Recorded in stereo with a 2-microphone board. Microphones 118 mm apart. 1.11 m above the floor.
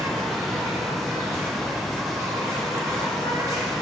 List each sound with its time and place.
0.0 s an insect: 25° right (ahead or behind), 1.2 m